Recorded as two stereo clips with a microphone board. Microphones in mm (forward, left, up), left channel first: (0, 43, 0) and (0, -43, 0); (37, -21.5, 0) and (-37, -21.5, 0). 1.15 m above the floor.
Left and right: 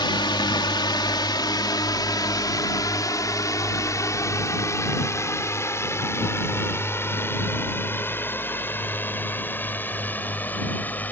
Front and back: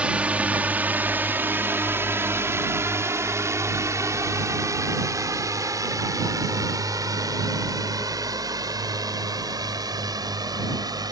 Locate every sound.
0.0 s a drone: 110° left; by 11.1 s 160° left